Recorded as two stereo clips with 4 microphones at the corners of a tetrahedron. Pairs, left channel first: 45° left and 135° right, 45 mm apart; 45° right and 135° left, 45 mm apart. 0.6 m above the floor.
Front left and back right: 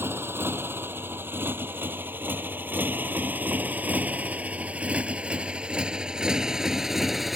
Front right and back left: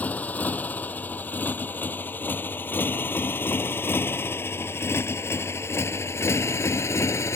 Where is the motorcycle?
100° right; by 7.4 s 50° right.